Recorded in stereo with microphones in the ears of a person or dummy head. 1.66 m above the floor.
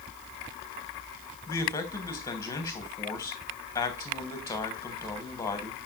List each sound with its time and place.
1.5 s a man speaking: 20° left (ahead or behind), 1.2 m